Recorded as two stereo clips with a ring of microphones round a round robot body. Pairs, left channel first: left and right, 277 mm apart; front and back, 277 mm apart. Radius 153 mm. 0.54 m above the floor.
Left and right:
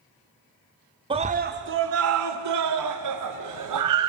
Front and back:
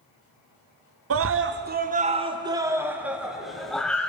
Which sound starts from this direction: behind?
A scream, at 1.1 s.